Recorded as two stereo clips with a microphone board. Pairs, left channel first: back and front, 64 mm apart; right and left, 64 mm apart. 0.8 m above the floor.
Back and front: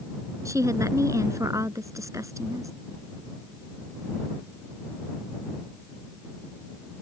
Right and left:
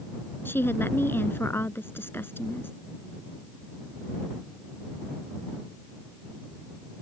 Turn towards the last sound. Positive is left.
turn(degrees=-35)